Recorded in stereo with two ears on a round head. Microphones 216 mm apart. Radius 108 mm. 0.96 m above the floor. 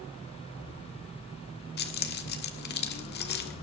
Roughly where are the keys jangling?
Left.